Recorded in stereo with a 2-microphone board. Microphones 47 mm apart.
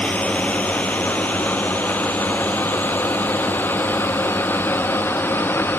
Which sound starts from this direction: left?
A drone, at 0.0 s.